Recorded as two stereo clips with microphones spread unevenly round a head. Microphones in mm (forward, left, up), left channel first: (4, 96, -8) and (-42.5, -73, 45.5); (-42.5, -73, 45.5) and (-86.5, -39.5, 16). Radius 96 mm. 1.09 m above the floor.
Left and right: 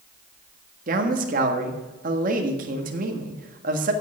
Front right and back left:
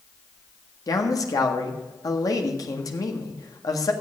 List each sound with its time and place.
0.9 s a man speaking: 55° right, 1.6 m